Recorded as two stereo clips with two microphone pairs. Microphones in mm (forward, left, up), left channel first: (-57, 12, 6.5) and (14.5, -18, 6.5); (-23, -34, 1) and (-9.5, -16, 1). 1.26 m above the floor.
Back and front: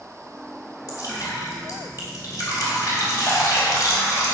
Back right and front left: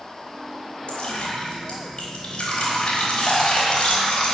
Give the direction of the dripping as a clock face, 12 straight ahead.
5 o'clock.